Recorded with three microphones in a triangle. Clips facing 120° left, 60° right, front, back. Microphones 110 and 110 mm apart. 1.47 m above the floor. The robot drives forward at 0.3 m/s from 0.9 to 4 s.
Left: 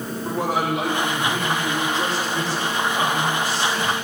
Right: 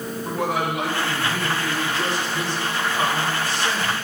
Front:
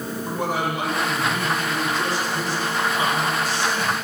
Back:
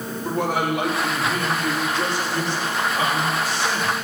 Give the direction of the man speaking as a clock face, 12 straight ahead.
6 o'clock.